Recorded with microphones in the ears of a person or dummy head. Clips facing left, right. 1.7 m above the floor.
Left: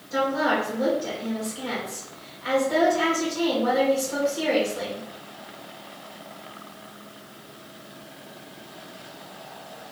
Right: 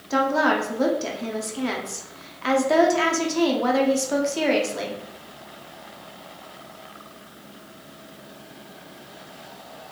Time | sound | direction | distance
0.1 | a woman speaking | 80° right | 1.1 m